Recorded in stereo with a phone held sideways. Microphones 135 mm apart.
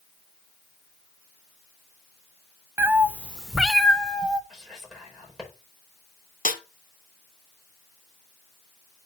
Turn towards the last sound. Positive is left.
turn(degrees=80)